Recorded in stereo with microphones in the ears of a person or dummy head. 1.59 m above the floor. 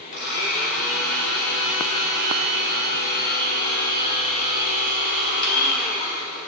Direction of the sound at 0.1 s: 55° left (ahead or behind).